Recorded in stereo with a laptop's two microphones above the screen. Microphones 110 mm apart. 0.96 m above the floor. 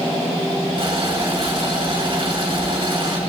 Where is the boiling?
50° right (ahead or behind), 4.5 m.